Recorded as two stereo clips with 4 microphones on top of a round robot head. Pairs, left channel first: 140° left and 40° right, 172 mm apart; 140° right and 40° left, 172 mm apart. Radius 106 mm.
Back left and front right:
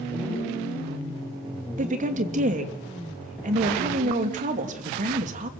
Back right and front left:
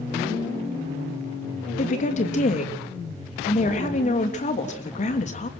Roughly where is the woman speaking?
Right.